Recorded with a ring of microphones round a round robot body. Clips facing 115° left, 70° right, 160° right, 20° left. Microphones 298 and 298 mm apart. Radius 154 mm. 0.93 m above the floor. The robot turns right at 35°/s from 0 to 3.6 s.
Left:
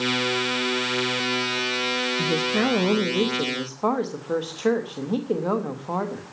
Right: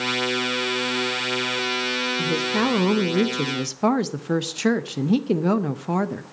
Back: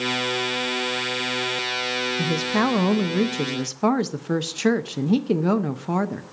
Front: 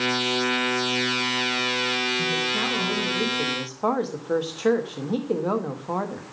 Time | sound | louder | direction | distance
2.2 | a woman speaking | even, back 5 dB | 160° right | 0.9 m